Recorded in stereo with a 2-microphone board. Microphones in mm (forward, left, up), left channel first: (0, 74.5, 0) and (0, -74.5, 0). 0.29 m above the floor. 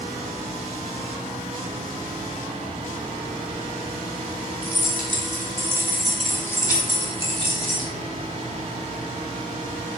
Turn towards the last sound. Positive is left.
turn(degrees=60)  # may be behind; listen again after turning